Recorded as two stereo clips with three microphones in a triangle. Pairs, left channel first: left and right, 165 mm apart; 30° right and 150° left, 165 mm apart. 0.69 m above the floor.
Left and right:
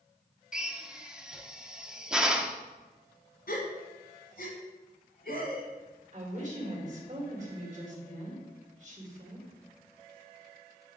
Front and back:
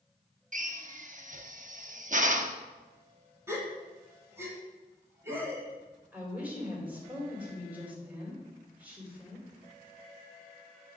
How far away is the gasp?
About 1.8 m.